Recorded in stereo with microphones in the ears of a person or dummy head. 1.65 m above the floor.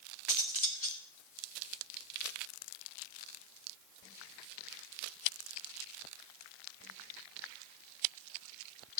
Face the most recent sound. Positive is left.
turn(degrees=40)  # may be behind; listen again after turning